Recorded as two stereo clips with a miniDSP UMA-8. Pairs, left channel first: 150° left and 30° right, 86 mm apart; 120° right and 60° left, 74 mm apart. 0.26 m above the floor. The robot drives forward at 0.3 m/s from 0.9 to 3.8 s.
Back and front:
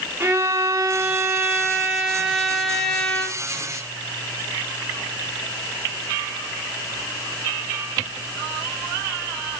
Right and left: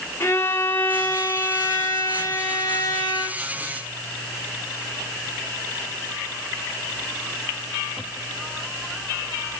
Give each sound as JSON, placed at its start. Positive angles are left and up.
{"t": 0.2, "sound": "a violin", "azimuth_deg": -80, "distance_m": 0.8}